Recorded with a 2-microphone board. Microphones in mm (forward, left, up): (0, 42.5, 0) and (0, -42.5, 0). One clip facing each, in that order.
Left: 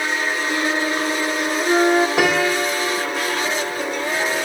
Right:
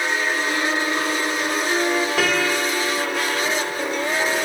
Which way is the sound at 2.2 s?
15° left (ahead or behind).